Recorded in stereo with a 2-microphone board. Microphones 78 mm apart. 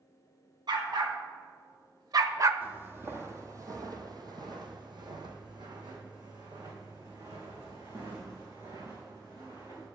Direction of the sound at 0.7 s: 75° right (ahead or behind).